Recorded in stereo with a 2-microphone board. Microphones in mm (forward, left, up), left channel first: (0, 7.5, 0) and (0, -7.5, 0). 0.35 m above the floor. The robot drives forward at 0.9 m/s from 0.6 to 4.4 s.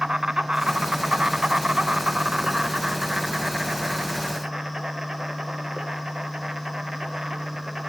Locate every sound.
0.0 s an insect: 55° right (ahead or behind), 1.3 m; by 7.9 s 20° right (ahead or behind), 3 m